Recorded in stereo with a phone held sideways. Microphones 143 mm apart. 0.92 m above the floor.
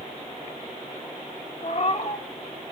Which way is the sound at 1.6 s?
50° left (ahead or behind).